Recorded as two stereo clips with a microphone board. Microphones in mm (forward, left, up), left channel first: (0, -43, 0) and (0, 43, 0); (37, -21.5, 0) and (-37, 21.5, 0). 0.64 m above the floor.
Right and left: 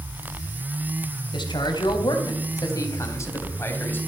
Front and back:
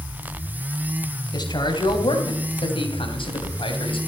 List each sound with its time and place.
1.3 s a man speaking: 60° right, 3.5 m; by 4.0 s 20° right, 3.5 m